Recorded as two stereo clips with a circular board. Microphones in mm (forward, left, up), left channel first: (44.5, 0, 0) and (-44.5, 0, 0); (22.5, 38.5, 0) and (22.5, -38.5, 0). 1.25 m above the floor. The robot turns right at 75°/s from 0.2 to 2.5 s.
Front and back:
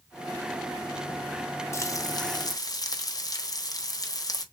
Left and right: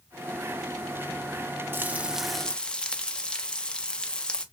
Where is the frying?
45° right, 0.6 m; by 4.5 s 15° left, 0.6 m.